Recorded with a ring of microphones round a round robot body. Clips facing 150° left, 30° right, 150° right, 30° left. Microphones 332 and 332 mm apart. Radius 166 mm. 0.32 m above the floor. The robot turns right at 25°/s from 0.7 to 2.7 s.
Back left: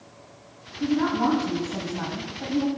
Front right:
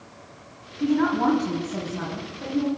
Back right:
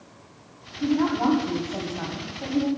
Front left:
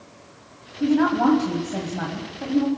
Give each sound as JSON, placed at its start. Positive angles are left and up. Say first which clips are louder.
{"t": 0.8, "sound": "a woman speaking", "louder": "front right 2 dB, front left 3 dB", "azimuth_deg": 45, "distance_m": 2.0}